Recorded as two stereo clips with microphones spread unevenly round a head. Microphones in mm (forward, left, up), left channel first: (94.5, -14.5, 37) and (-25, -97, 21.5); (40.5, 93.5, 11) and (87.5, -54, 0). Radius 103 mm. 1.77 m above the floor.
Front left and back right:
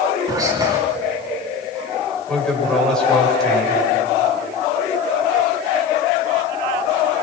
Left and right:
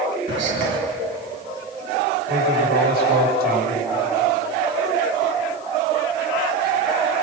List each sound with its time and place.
0.3 s whispering: 80° right, 1.4 m
2.3 s a man speaking: 50° right, 8.5 m